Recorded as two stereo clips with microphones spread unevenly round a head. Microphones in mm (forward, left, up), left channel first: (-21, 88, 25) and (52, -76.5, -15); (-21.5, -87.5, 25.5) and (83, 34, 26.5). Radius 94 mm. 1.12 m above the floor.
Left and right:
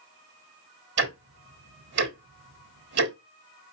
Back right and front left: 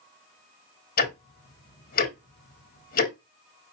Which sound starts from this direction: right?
Ticking, at 1.0 s.